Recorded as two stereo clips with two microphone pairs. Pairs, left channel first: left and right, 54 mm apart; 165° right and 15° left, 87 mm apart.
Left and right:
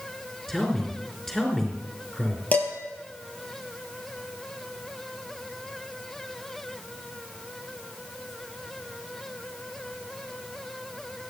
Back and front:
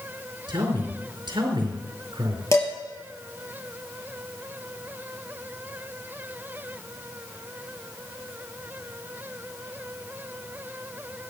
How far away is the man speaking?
About 4 m.